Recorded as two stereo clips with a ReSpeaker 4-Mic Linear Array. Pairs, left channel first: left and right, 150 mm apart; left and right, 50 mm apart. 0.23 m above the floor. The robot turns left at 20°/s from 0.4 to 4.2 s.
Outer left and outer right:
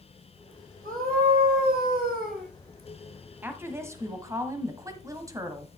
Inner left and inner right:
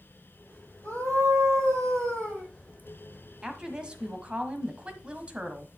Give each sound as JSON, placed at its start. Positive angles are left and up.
{"t": 0.8, "sound": "a scream", "azimuth_deg": -65, "distance_m": 6.5}
{"t": 3.4, "sound": "a woman speaking", "side_deg": -15, "distance_m": 1.3}